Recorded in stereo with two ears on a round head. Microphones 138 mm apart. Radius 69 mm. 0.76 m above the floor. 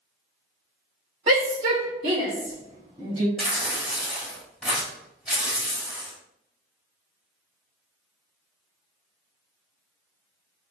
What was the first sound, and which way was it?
A shout, 35° right (ahead or behind).